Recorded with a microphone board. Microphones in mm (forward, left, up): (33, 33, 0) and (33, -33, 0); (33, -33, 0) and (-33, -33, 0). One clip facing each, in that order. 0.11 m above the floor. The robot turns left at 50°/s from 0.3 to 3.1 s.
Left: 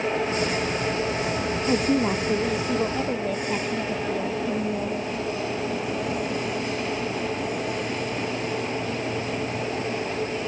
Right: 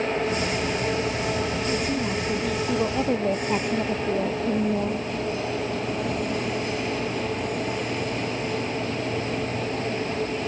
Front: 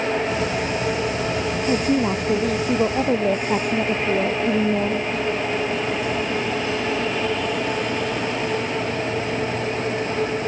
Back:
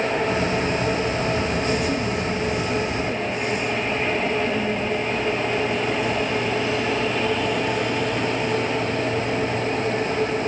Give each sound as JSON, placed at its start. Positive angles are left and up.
{"t": 1.7, "sound": "a woman speaking", "azimuth_deg": 55}